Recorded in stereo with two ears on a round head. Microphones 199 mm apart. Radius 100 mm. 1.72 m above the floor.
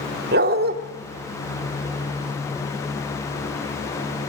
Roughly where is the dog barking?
Right.